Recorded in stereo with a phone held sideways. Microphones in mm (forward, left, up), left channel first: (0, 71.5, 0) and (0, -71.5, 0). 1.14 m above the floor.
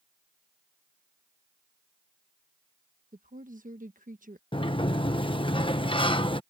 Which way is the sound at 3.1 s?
70° right (ahead or behind).